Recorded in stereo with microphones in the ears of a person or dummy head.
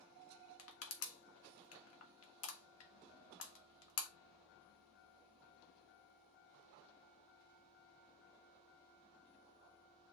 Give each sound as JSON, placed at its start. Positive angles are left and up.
{"t": 0.6, "sound": "crushing", "side_deg": 80, "distance_m": 1.1}